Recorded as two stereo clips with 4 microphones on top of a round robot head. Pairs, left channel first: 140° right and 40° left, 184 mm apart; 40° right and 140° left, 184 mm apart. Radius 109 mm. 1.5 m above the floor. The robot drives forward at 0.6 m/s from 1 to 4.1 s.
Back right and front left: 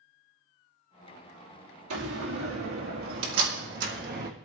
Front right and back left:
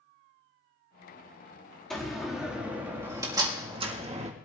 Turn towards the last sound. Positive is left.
turn(degrees=80)